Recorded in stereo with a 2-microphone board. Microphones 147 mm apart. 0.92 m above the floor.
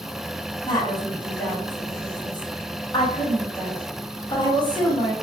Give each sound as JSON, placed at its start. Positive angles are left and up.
{"t": 0.7, "sound": "a woman speaking", "side_deg": 30, "distance_m": 0.9}